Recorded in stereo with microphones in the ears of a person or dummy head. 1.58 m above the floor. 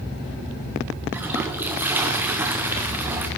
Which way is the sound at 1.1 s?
10° right (ahead or behind).